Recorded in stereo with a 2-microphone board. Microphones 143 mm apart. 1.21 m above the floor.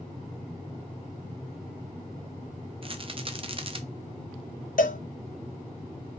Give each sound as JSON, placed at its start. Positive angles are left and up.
{"t": 2.8, "sound": "a rattle", "side_deg": -40, "distance_m": 0.5}
{"t": 4.8, "sound": "a cowbell", "side_deg": 70, "distance_m": 0.5}